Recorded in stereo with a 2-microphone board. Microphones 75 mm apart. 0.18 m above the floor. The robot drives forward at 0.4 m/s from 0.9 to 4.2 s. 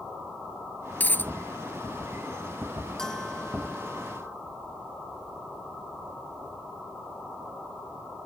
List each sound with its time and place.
1.0 s a dropped coin: 25° left (ahead or behind)
3.0 s a bell: 10° left (ahead or behind)